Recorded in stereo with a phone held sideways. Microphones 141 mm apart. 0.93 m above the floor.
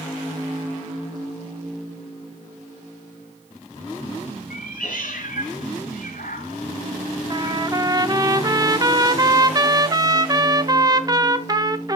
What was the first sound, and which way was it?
A cat meowing, 80° left.